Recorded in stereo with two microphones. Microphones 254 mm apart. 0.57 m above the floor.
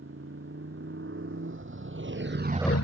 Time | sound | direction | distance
0.0 | a motorcycle | 55° right (ahead or behind) | ?